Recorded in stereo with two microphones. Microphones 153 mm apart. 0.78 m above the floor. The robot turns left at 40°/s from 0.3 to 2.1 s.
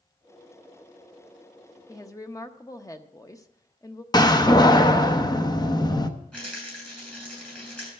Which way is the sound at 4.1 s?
25° left (ahead or behind).